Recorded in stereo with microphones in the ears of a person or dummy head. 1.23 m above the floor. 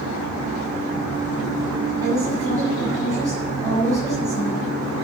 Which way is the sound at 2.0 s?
15° right (ahead or behind).